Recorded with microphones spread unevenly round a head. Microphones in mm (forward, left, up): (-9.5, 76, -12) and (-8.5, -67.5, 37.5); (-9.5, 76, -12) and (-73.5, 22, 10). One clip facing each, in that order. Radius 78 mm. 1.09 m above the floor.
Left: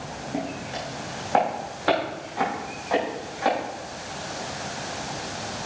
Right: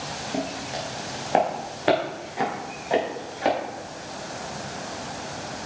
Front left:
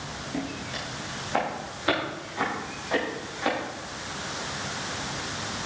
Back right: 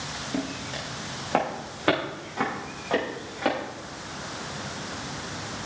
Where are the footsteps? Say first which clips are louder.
Right 1 dB, back right 2 dB; 150° right, 4 m; by 3.5 s 145° right, 7 m.